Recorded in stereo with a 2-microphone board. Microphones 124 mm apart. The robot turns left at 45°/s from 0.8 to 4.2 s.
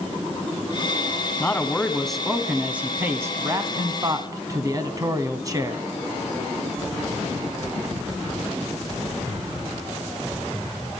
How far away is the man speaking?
About 1.2 m.